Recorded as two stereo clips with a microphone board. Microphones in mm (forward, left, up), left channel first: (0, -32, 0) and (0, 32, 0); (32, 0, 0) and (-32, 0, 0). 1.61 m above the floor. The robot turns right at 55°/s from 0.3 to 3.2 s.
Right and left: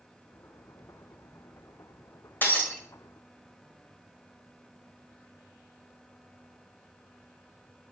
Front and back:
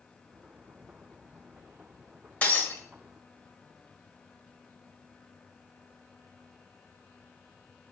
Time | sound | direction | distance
2.4 | breaking glass | 55° right | 1.7 m